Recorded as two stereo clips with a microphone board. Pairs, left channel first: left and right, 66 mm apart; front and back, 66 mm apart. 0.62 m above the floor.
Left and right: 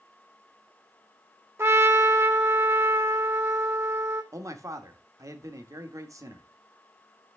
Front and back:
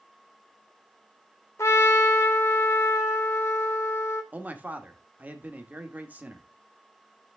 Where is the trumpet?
45° right, 1.8 m.